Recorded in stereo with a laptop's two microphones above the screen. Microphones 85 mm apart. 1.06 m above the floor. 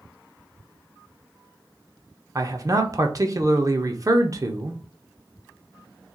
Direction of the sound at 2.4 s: 40° right (ahead or behind).